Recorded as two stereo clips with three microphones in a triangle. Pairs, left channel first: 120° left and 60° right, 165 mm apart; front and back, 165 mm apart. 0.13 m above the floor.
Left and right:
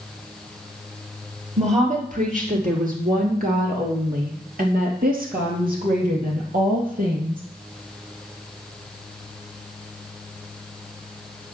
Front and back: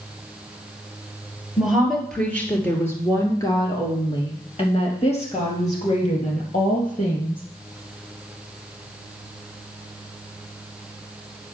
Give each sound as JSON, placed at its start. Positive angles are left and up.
{"t": 1.6, "sound": "a woman speaking", "azimuth_deg": -90, "distance_m": 2.5}